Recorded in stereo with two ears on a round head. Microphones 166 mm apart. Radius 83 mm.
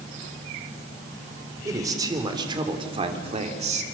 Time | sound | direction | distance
1.6 | a man speaking | 20° right (ahead or behind) | 3.5 m